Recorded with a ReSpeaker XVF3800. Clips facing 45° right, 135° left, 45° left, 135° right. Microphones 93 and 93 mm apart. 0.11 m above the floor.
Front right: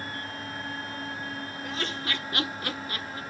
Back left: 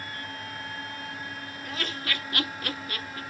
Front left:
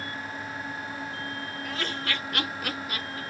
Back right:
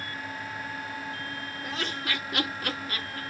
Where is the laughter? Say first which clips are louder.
Even, even; 85° right, 1.2 m; by 3.2 s 5° right, 1.2 m.